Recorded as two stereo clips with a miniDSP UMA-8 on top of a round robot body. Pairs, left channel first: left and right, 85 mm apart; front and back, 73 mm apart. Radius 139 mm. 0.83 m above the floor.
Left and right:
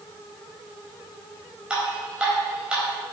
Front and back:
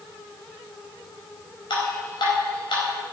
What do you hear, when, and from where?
1.7 s dripping: 10° right, 4 m